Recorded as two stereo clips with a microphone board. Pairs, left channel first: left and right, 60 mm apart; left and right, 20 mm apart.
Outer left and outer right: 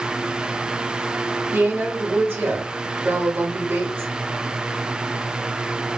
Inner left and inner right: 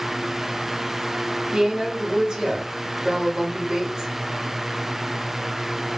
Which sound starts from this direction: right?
A woman speaking, at 1.5 s.